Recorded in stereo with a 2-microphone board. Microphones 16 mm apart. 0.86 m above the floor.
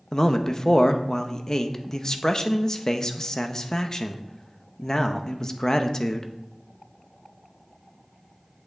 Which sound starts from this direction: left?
A man speaking, at 0.1 s.